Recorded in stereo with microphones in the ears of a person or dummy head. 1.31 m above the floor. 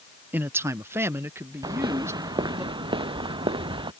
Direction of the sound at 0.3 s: 10° right (ahead or behind).